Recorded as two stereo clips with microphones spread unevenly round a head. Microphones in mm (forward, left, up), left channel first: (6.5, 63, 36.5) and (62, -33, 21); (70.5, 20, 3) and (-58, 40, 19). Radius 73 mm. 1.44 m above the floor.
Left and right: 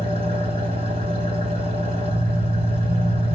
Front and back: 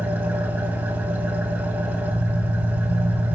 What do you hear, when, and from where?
0.0 s an engine running: 115° right, 3 m